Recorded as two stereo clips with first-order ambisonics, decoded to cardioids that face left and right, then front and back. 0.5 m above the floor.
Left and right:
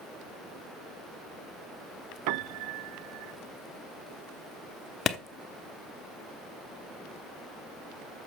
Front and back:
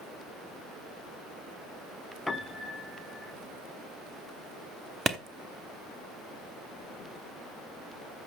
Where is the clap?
110° left, 0.9 m.